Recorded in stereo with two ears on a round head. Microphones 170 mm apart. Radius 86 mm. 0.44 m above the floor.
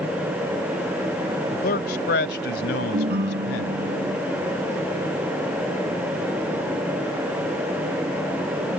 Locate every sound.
1.5 s a man speaking: 50° left (ahead or behind); by 3.8 s 65° left (ahead or behind)
2.9 s a ringtone: 55° right (ahead or behind)